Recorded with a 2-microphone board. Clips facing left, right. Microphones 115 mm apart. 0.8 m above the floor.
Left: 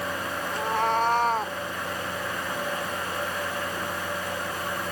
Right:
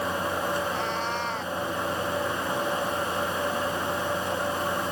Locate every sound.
0.5 s a cat meowing: 55° left (ahead or behind); by 1.6 s 40° left (ahead or behind)